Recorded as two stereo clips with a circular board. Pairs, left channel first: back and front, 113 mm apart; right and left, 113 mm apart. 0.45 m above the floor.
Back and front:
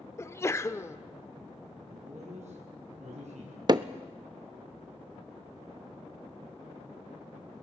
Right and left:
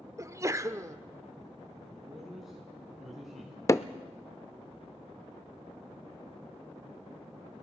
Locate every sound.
0.2 s a sneeze: 130° left, 0.9 m
1.9 s a man speaking: 5° left, 6 m
3.7 s hammering: 35° right, 0.6 m